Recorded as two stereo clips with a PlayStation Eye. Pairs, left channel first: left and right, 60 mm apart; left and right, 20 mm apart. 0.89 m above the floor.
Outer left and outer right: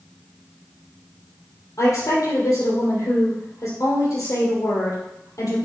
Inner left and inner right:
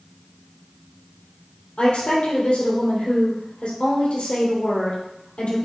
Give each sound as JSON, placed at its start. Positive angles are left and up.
{"t": 1.8, "sound": "a woman speaking", "side_deg": 75, "distance_m": 3.0}